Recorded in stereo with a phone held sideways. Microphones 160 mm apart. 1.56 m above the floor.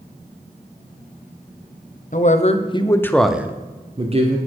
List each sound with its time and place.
2.1 s a man speaking: 55° left (ahead or behind), 0.9 m; by 4.4 s 45° right (ahead or behind), 1.0 m